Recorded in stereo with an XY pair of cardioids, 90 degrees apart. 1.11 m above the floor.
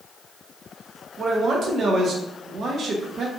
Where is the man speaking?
65° right, 0.7 m.